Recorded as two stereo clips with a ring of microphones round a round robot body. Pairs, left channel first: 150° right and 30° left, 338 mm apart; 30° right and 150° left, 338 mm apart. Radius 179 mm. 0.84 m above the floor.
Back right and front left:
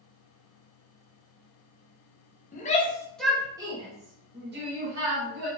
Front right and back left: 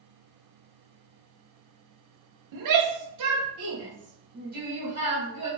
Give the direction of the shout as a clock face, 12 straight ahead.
7 o'clock.